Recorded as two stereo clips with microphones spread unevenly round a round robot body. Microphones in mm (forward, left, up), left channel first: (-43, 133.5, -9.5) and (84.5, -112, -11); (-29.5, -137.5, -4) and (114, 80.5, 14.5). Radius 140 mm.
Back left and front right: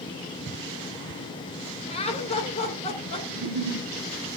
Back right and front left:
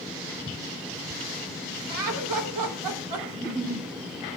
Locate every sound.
1.9 s laughter: 50° left, 3 m
3.3 s a giggle: 20° right, 7 m